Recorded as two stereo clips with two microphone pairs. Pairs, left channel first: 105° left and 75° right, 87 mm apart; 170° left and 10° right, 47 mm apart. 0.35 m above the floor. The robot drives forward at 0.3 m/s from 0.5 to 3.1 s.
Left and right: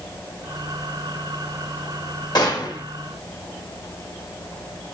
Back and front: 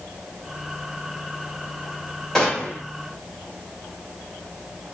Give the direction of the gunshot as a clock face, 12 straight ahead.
9 o'clock.